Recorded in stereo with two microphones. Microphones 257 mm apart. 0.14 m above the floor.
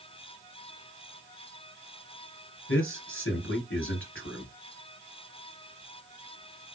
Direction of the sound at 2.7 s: 55° left (ahead or behind).